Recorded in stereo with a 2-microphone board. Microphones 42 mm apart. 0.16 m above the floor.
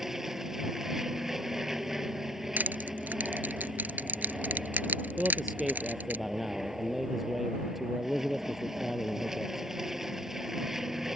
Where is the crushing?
50° right (ahead or behind).